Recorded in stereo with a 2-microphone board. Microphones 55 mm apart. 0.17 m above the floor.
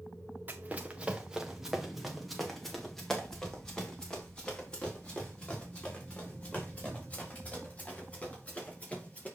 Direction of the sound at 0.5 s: 35° right (ahead or behind).